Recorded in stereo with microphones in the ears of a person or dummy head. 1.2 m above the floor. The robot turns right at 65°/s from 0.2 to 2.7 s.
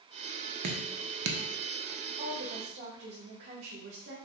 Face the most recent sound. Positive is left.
turn(degrees=-70)